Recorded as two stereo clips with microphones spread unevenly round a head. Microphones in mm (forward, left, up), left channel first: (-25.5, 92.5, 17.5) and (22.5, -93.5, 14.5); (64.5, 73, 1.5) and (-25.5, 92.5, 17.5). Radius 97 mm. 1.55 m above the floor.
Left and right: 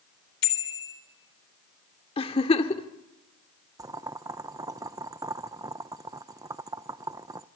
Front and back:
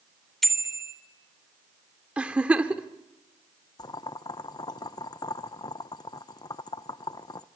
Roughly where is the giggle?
Behind left.